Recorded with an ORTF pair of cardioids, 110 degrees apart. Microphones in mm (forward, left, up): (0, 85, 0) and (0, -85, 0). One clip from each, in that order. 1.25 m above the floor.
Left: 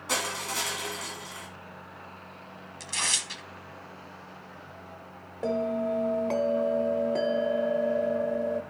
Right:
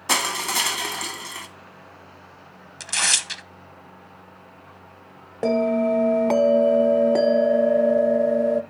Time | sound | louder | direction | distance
0.1 | crushing | right 8 dB | 70° right | 1.5 m
2.8 | tearing paper | right 7 dB | 45° right | 0.9 m
5.4 | a bell | right 8 dB | 45° right | 0.6 m